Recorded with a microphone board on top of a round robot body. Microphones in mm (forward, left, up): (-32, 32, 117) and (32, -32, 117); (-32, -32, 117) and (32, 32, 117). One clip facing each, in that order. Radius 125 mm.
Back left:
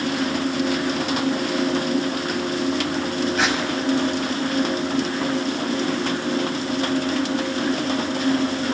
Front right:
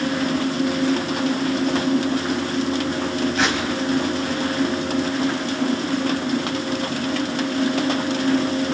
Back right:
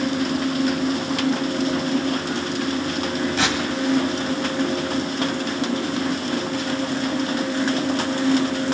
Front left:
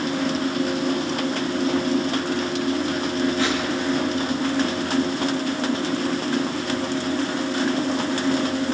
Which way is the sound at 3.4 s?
135° right.